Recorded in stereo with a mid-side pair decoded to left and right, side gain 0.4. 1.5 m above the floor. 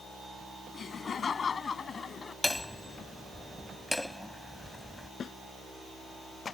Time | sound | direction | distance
0.7 | laughter | 50° left | ?
2.4 | hammering | 10° left | ?
5.2 | a snare drum | 55° left | ?